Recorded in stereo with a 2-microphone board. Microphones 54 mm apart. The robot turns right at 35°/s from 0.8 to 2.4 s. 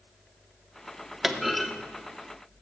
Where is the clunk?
5° right (ahead or behind), 0.7 m; by 1.7 s 5° left (ahead or behind), 0.7 m.